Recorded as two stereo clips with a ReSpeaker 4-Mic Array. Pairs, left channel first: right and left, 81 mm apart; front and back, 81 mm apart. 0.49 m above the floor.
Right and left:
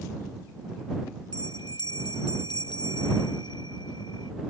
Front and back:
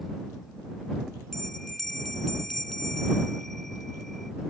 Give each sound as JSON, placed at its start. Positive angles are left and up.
{"t": 1.3, "sound": "a bell", "azimuth_deg": -85}